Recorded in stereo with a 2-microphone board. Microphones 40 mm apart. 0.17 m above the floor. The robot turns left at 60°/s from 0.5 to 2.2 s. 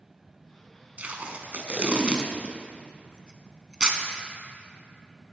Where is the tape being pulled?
35° right (ahead or behind), 0.7 m; by 4.0 s 20° right (ahead or behind), 0.7 m.